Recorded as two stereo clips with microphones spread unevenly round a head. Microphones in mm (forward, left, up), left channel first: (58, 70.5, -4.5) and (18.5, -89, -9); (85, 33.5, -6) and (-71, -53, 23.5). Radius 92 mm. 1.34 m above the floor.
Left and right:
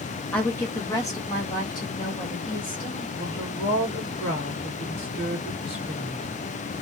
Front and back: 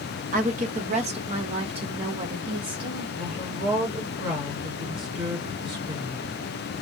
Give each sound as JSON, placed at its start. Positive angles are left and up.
{"t": 0.3, "sound": "a woman speaking", "azimuth_deg": 160, "distance_m": 0.8}
{"t": 3.2, "sound": "a woman speaking", "azimuth_deg": 145, "distance_m": 2.0}